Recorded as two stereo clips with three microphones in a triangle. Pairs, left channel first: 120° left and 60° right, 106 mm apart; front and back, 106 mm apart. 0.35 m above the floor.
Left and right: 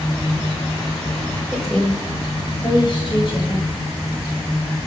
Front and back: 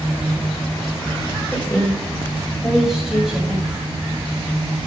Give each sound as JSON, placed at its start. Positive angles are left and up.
{"t": 1.5, "sound": "a woman speaking", "azimuth_deg": 10, "distance_m": 1.4}